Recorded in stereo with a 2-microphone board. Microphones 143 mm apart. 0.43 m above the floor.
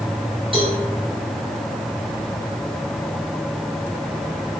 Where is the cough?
No cough in this recording.